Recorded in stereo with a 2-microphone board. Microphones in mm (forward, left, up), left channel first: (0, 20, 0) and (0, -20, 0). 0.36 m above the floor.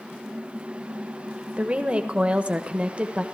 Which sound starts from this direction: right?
A woman speaking, at 1.6 s.